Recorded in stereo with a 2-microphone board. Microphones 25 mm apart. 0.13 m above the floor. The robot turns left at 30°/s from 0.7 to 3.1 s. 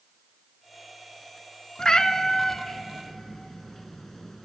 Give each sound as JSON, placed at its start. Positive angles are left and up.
{"t": 1.8, "sound": "a cat meowing", "side_deg": 30, "distance_m": 0.6}